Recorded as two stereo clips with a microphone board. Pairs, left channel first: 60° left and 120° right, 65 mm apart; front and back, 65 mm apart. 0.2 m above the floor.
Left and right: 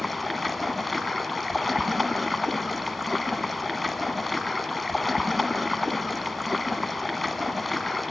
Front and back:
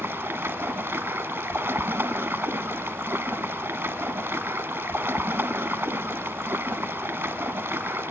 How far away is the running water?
About 0.7 m.